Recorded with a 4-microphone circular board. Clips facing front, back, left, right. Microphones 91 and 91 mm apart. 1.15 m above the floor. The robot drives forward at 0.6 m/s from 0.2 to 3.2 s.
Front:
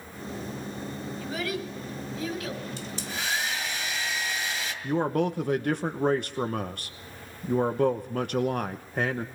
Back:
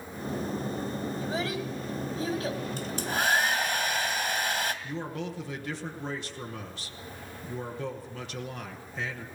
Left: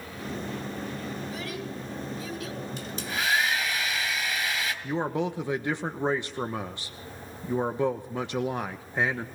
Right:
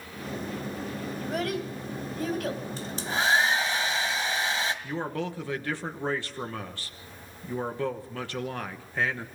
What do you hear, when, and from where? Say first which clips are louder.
1.2 s a child speaking: front 2 dB, right 5 dB; 115° right, 4.5 m; by 2.6 s 125° right, 5 m
2.8 s a hair dryer: back 5 dB, right 2 dB; 145° right, 2.0 m
4.8 s a man speaking: front 10 dB, left 4 dB; 20° left, 1.1 m